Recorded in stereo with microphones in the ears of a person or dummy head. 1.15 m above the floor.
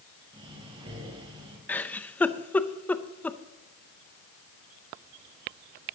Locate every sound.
0.3 s breathing: 30° right (ahead or behind), 3 m
1.7 s a giggle: 5° left (ahead or behind), 0.6 m